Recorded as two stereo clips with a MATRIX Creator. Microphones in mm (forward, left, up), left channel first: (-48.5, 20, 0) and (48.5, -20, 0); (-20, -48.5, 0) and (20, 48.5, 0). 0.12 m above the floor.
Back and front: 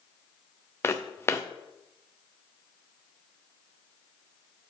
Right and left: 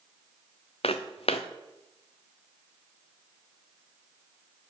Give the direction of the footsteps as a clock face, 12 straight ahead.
5 o'clock.